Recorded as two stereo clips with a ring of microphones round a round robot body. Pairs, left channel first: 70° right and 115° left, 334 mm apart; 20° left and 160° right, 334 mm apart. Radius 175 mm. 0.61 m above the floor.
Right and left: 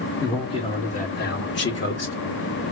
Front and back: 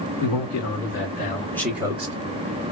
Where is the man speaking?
10° left, 1.4 m; by 2.1 s 100° right, 1.0 m.